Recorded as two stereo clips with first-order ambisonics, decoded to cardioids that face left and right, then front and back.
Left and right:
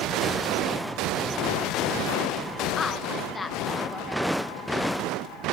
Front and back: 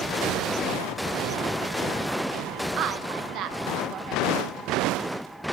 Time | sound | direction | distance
2.8 | a woman speaking | 160° left | 0.8 m